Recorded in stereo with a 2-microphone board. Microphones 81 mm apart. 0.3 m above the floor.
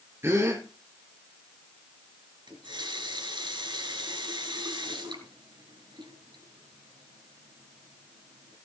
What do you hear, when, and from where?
0.2 s a gasp: 30° right (ahead or behind), 3 m
2.5 s a running tap: 70° right (ahead or behind), 3.5 m